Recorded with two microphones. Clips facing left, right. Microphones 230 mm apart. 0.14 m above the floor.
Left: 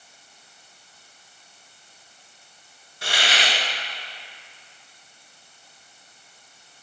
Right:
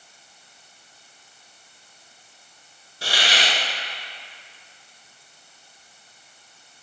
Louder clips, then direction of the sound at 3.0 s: Right 1 dB; 30° right (ahead or behind).